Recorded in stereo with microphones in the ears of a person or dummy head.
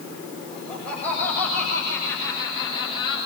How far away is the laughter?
About 9 m.